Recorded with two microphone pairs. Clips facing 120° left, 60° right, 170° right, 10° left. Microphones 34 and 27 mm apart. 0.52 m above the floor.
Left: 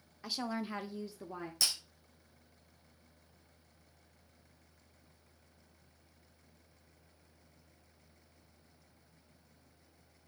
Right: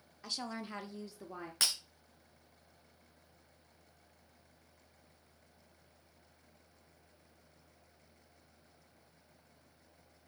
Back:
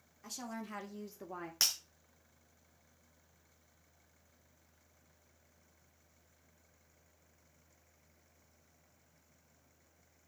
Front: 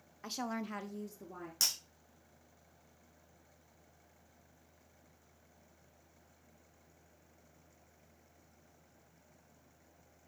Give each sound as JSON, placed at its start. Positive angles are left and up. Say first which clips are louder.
{"t": 0.2, "sound": "a woman speaking", "louder": "left 4 dB, front 5 dB", "azimuth_deg": 35, "distance_m": 0.9}
{"t": 1.6, "sound": "breaking glass", "louder": "even, back 1 dB", "azimuth_deg": -110, "distance_m": 2.0}